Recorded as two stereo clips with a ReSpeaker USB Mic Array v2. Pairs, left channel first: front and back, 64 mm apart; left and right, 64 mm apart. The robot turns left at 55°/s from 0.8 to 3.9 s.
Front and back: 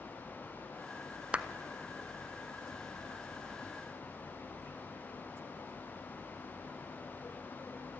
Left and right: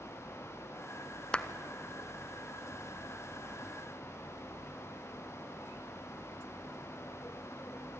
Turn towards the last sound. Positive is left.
turn(degrees=0)